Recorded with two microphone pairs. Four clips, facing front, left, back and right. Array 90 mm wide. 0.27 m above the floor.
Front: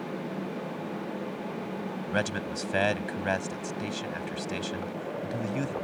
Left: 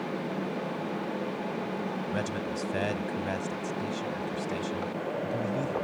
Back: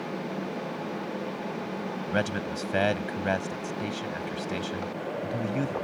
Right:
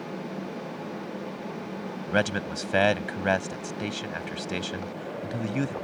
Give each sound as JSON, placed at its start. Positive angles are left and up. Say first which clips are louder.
{"t": 2.1, "sound": "a man speaking", "louder": "right 5 dB, back 2 dB", "azimuth_deg": -80}